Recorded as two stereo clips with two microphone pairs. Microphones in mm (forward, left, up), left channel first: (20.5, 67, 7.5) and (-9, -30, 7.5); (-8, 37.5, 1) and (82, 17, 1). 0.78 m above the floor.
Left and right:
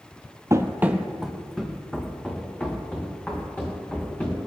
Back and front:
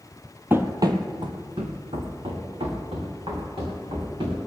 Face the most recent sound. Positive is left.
turn(degrees=5)